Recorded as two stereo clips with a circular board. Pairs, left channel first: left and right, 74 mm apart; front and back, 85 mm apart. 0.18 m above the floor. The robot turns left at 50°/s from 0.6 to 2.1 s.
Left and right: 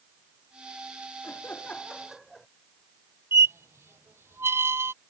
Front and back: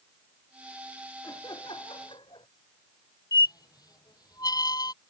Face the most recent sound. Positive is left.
turn(degrees=-35)